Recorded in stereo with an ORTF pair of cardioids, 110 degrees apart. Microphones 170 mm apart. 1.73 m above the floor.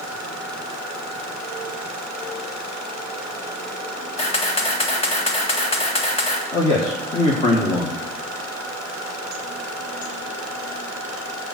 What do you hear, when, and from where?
4.2 s a camera shutter: 40° left, 2.0 m
6.5 s a man speaking: 35° left, 1.8 m